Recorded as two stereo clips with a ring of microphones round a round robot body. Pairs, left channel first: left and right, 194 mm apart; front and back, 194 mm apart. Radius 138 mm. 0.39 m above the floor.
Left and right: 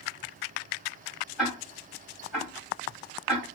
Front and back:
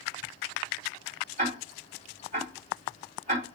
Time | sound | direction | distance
1.4 | ticking | straight behind | 2 m